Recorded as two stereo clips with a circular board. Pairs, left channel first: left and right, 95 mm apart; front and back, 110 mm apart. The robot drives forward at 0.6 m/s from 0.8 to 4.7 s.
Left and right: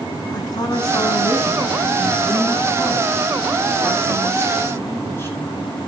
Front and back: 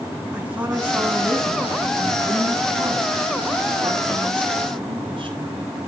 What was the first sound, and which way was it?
A woman speaking, 105° left.